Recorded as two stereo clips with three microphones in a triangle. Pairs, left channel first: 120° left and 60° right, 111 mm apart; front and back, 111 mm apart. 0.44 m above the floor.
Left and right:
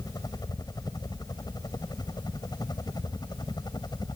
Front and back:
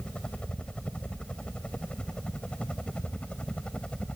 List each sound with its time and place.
0.0 s a helicopter: 80° left